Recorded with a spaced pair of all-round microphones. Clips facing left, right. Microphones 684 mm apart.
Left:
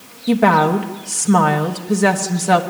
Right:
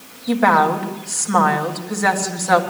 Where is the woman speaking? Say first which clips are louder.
Left 3 dB; 60° left (ahead or behind), 1.2 m.